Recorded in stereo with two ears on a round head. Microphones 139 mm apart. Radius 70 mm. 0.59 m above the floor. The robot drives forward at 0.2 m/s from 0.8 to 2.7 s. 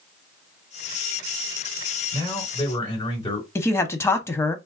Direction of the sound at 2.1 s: 30° left (ahead or behind).